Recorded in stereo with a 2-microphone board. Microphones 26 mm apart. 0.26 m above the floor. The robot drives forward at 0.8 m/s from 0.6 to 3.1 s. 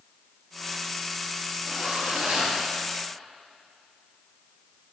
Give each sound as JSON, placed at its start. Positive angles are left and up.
{"t": 1.6, "sound": "a zipper", "side_deg": -35, "distance_m": 4.0}